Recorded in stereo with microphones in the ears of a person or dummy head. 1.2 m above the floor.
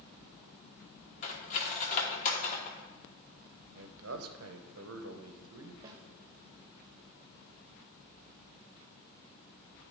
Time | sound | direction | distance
1.2 | cutlery clinking | 40° left (ahead or behind) | 1.2 m
3.8 | a man speaking | 65° right (ahead or behind) | 0.7 m
5.8 | a snare drum | 20° right (ahead or behind) | 1.0 m